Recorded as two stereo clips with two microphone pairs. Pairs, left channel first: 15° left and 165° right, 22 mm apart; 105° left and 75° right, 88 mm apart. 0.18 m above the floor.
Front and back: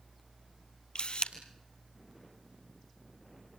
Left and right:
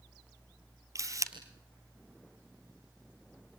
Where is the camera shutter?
30° right, 1.7 m.